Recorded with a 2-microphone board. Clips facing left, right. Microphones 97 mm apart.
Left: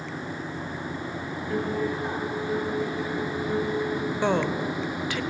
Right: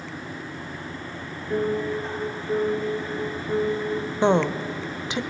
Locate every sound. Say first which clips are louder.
1.5 s a piano: right 3 dB; 5° right (ahead or behind), 8 m
4.2 s a woman speaking: right 5 dB; 20° right (ahead or behind), 1.1 m